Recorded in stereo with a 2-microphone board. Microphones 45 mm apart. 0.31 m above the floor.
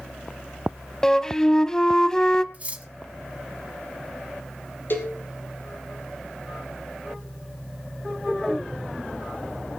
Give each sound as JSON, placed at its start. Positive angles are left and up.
{"t": 1.0, "sound": "a flute", "side_deg": 15, "distance_m": 0.8}
{"t": 2.5, "sound": "cutlery clinking", "side_deg": -30, "distance_m": 1.3}
{"t": 4.9, "sound": "a cowbell", "side_deg": 55, "distance_m": 3.0}